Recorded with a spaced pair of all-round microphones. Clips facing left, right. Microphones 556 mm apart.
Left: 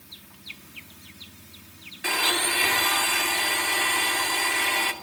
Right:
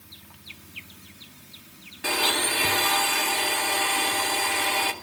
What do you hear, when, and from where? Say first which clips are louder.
2.0 s a blender: right 2 dB; 60° right (ahead or behind), 2.5 m